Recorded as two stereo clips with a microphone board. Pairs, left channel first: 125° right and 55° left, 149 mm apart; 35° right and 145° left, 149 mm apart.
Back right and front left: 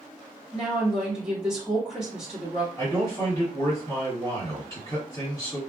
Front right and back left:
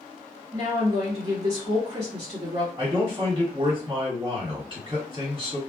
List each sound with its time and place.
0.5 s a woman speaking: 135° left, 1.4 m
2.8 s a man speaking: 175° left, 1.7 m